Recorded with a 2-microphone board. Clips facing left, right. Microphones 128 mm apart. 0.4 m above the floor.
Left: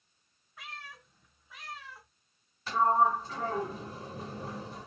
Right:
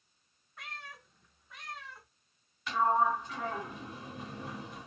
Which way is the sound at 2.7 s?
35° left (ahead or behind).